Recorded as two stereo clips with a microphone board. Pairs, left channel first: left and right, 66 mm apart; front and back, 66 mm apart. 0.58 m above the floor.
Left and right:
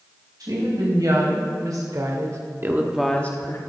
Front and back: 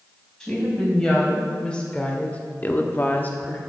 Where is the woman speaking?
80° right, 3.5 m; by 3.6 s 65° left, 1.0 m.